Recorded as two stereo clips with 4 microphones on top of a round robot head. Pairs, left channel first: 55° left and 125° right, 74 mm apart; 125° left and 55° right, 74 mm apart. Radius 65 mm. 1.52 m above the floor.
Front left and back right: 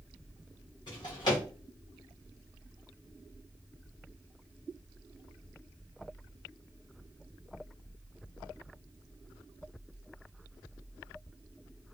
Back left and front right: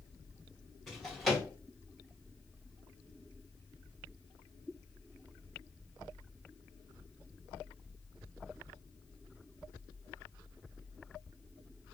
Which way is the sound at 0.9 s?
40° left.